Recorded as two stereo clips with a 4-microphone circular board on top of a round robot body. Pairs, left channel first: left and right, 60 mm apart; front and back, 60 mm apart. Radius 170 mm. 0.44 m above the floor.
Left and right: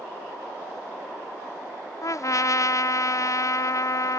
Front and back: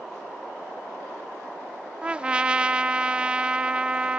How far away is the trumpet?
About 0.7 m.